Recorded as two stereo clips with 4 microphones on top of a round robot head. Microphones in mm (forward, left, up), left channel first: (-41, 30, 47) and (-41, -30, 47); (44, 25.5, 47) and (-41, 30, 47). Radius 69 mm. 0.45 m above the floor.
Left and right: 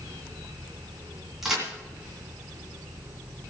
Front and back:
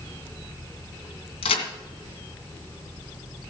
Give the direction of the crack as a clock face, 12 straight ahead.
12 o'clock.